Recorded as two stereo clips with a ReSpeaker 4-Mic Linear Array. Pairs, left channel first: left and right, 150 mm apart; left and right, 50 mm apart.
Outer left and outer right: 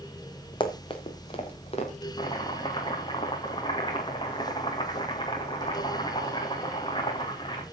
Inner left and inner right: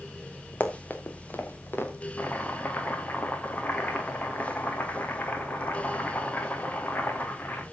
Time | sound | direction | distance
0.6 | running footsteps | 30° left (ahead or behind) | 3 m
2.2 | chopping | 30° left (ahead or behind) | 4 m